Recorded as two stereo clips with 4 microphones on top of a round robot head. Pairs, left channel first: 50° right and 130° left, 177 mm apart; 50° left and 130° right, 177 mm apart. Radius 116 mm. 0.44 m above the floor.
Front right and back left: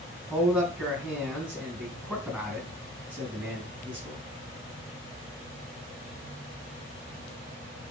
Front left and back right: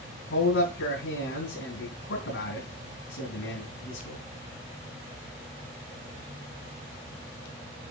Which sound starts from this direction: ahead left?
A man speaking, at 0.3 s.